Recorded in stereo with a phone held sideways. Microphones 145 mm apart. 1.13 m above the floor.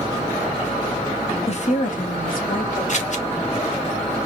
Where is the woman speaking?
45° left (ahead or behind), 0.8 m; by 2.8 s 80° left, 2 m.